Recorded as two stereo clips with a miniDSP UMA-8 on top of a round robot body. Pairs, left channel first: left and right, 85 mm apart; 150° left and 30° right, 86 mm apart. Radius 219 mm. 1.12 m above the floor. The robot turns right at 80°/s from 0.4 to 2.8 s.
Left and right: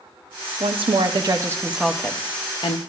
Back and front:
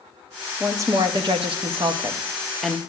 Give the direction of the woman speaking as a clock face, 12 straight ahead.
3 o'clock.